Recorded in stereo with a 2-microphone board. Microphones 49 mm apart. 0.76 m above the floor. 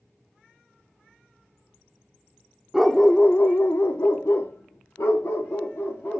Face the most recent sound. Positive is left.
turn(degrees=75)  # may be behind; listen again after turning